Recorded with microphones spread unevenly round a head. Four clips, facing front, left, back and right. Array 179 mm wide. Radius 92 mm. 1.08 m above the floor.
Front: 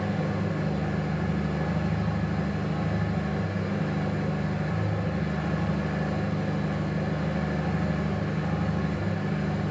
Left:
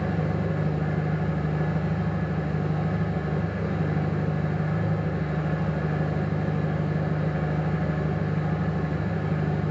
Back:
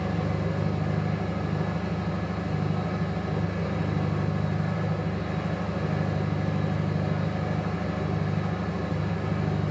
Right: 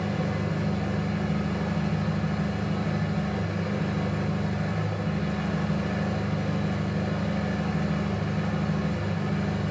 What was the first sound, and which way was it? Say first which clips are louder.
An engine running: left 1 dB, even; 100° left.